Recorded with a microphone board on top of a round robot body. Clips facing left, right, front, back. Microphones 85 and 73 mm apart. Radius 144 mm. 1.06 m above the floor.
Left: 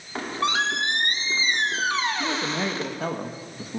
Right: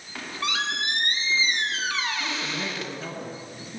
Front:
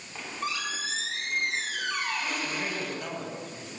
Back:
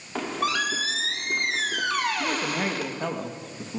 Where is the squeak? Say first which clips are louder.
Left 5 dB, back 8 dB; 150° left, 0.9 m.